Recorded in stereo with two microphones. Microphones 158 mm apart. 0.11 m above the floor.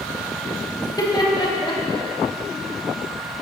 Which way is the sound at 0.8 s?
25° left (ahead or behind).